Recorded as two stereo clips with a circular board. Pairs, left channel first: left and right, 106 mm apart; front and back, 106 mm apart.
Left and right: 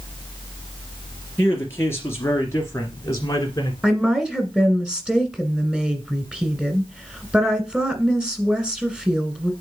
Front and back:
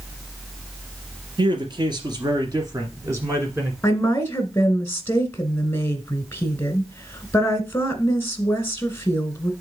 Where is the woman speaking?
20° right, 1.6 m.